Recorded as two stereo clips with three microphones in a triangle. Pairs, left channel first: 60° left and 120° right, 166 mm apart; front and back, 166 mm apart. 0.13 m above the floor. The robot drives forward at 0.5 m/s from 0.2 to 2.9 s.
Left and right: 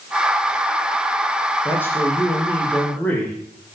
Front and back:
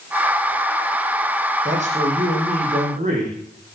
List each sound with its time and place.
1.6 s a man speaking: 135° left, 6 m; by 3.4 s 140° left, 6.5 m